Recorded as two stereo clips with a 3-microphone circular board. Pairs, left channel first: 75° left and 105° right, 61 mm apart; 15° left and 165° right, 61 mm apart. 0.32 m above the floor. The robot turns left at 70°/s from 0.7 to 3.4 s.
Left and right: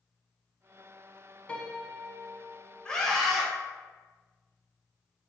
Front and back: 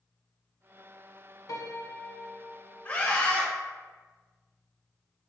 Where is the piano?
5° left, 0.5 m; by 3.1 s 105° right, 0.5 m.